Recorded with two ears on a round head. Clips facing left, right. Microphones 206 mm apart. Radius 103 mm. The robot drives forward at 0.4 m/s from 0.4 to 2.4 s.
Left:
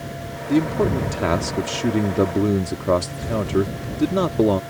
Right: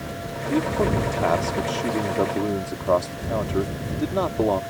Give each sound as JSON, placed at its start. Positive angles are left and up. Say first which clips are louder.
{"t": 0.5, "sound": "a man speaking", "louder": "left 3 dB", "side_deg": 30}